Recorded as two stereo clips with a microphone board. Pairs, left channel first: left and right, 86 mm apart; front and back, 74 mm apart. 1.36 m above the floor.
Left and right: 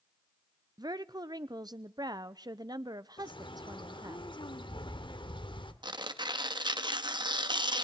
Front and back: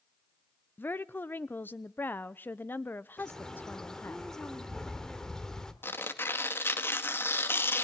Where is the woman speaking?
60° right, 0.7 m.